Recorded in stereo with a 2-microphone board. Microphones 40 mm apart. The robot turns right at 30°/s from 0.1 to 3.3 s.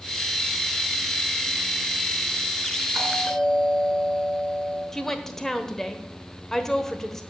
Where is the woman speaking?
10° left (ahead or behind), 1.1 m.